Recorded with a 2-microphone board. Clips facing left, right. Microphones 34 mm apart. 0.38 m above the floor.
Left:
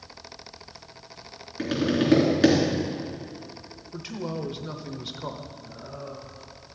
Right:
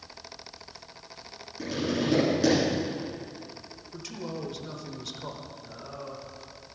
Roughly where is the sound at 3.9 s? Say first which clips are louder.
Left 4 dB; left.